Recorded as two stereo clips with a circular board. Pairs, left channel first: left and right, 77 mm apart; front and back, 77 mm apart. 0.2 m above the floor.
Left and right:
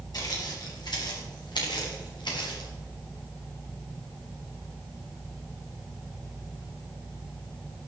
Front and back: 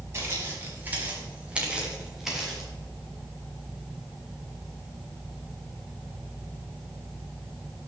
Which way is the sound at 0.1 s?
125° left.